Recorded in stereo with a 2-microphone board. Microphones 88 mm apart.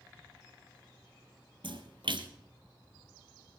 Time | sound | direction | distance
1.6 | a splash | 70° right (ahead or behind) | 1.7 m